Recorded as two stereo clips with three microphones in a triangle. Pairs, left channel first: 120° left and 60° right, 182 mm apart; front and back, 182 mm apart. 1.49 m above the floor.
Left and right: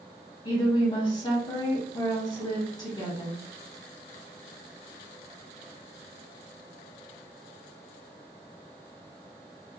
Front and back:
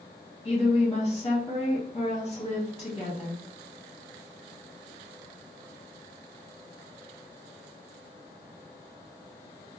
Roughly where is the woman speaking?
Ahead left.